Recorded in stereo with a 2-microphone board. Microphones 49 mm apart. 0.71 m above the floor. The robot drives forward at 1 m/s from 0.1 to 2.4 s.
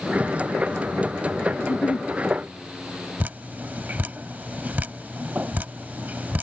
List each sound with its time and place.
1.6 s a giggle: 75° left (ahead or behind); by 2.1 s 80° left
3.2 s dripping: 40° right (ahead or behind)